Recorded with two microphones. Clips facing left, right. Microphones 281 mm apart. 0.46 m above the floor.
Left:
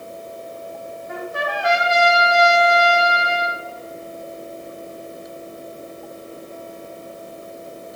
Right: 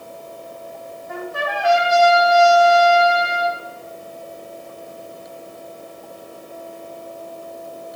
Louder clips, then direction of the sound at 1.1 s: Right 1 dB; 20° left (ahead or behind).